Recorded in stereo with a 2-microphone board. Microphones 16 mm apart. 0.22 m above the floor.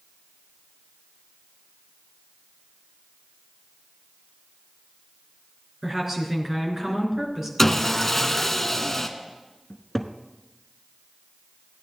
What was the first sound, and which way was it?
A woman speaking, 25° right (ahead or behind).